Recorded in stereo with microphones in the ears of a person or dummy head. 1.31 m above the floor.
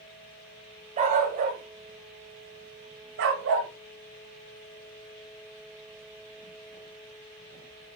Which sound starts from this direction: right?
A dog barking, at 1.0 s.